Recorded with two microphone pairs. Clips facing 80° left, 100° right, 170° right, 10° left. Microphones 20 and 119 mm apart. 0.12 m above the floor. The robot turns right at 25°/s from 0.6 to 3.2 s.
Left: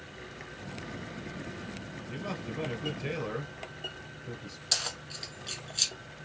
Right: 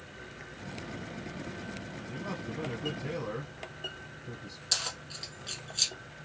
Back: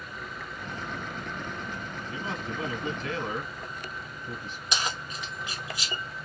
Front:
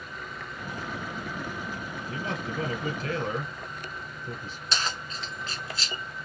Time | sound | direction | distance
2.1 | a man speaking | 25° left | 1.9 m
4.7 | keys jangling | 155° left | 0.8 m